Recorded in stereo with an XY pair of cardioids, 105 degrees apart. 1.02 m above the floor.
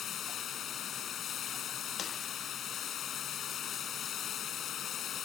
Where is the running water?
60° left.